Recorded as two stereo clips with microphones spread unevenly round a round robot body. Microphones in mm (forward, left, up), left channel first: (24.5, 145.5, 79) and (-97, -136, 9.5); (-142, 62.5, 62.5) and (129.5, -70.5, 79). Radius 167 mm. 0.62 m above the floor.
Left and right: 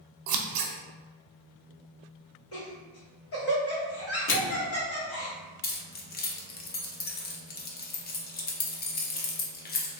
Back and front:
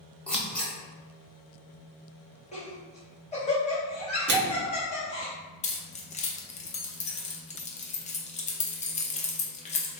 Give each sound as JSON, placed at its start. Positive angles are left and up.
{"t": 0.3, "sound": "scissors", "azimuth_deg": -120, "distance_m": 0.6}
{"t": 2.5, "sound": "laughter", "azimuth_deg": 100, "distance_m": 1.4}
{"t": 4.3, "sound": "a microwave", "azimuth_deg": 15, "distance_m": 0.9}
{"t": 5.6, "sound": "keys jangling", "azimuth_deg": 125, "distance_m": 0.6}